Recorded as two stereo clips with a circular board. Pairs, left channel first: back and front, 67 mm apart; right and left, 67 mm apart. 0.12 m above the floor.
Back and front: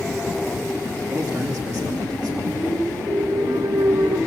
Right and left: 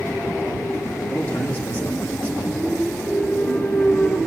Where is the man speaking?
25° right, 6 m.